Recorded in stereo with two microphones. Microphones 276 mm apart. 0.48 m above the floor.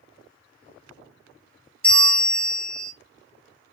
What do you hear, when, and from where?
1.8 s a bell: 5° left (ahead or behind), 0.8 m